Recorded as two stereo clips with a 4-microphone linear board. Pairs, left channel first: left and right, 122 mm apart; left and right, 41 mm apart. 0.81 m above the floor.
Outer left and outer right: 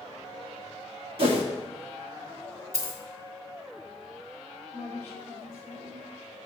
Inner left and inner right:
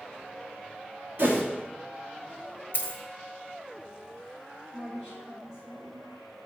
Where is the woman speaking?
15° left (ahead or behind), 3.5 m.